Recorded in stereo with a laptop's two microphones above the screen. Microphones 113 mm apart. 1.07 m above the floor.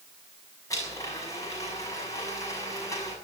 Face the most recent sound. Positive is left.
turn(degrees=30)  # may be behind; listen again after turning